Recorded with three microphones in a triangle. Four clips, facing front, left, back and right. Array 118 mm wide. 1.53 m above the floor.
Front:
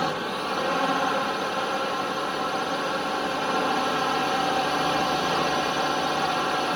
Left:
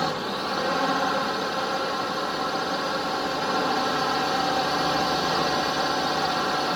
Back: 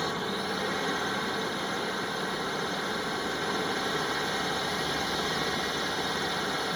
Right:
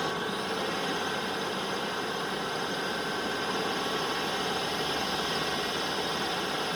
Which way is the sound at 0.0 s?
40° left.